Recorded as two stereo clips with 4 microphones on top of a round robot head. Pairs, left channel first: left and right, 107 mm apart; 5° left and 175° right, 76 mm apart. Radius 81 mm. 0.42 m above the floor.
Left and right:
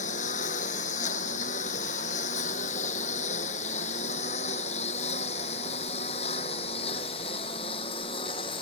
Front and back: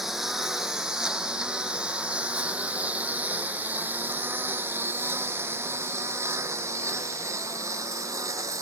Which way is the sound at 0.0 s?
100° left.